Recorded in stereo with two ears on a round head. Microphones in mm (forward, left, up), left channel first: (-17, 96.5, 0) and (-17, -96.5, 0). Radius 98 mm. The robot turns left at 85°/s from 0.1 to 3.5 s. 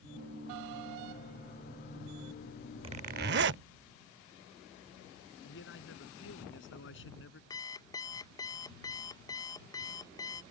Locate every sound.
2.8 s a zipper: 30° right; by 3.6 s 85° right
5.4 s a man speaking: 65° left (ahead or behind)
7.5 s an alarm clock: 20° left (ahead or behind)